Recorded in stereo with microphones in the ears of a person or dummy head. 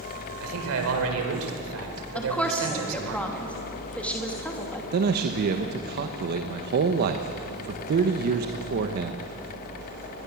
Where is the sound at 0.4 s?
80° right, 4.5 m.